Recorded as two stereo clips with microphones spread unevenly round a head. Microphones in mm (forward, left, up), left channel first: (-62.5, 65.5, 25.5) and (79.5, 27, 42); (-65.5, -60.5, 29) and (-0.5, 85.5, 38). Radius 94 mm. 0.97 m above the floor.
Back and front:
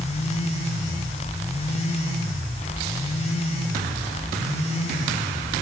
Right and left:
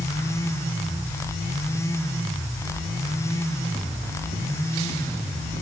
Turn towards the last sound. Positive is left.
No sound to turn to.